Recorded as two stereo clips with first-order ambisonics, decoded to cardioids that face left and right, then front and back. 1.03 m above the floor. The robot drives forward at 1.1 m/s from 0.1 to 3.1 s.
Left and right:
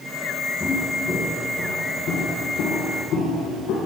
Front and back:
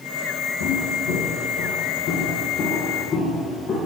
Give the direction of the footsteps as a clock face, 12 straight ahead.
12 o'clock.